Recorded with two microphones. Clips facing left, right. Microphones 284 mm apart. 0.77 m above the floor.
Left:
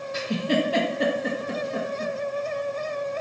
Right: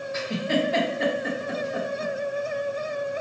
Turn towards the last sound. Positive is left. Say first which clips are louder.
# left 2 dB
turn(degrees=40)  # may be behind; listen again after turning